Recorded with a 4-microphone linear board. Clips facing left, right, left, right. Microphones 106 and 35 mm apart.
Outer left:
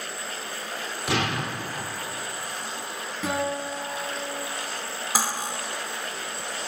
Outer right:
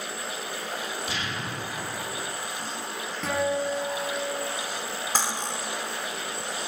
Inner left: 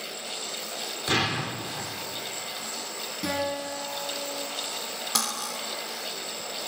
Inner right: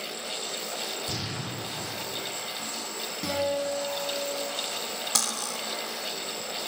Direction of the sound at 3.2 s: 5° left (ahead or behind).